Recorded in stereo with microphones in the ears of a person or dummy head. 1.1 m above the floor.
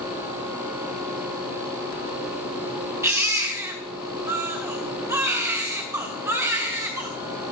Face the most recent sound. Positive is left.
turn(degrees=-20)  # may be behind; listen again after turning